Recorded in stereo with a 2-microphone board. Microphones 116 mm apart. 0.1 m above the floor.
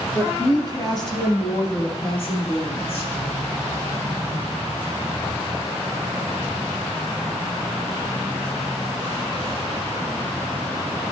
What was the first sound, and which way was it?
A woman speaking, 20° left (ahead or behind).